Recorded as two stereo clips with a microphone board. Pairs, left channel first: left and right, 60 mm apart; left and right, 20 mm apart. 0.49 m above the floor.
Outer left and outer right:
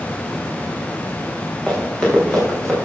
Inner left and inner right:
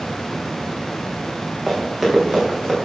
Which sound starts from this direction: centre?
Running footsteps, at 1.7 s.